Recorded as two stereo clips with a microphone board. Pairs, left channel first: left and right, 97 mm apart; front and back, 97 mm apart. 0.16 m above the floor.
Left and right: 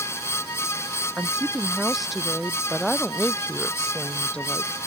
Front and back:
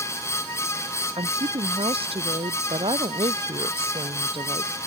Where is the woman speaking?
175° right; by 4.7 s 165° left.